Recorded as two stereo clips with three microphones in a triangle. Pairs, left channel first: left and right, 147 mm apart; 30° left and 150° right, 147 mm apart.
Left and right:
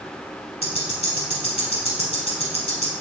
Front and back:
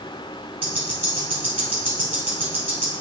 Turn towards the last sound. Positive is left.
turn(degrees=130)